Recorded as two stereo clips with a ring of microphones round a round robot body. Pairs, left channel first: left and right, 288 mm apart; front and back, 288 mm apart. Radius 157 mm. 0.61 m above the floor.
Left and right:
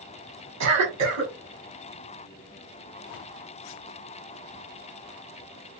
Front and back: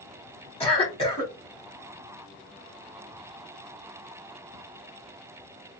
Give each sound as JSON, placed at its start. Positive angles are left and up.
{"t": 0.6, "sound": "a cough", "azimuth_deg": -70, "distance_m": 1.6}